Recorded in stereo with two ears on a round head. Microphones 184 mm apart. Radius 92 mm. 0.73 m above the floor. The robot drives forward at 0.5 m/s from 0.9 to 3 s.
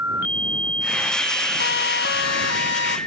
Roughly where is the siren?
Left.